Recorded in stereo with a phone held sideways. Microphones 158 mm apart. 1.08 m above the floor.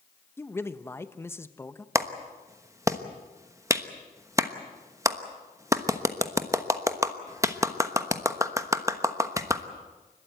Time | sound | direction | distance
0.4 | a man speaking | 15° left (ahead or behind) | 0.9 m
1.9 | a clap | 20° right (ahead or behind) | 1.1 m